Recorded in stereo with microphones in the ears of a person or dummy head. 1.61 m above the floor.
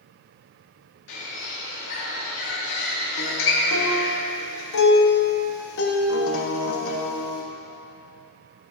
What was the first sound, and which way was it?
A bird, 65° left (ahead or behind).